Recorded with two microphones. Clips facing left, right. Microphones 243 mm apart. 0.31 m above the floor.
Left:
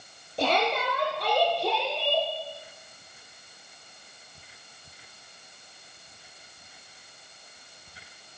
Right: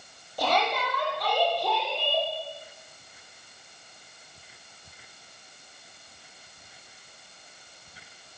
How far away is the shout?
About 9.5 m.